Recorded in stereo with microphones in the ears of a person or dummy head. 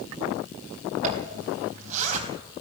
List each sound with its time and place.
1.0 s a zipper: 40° right (ahead or behind), 3.5 m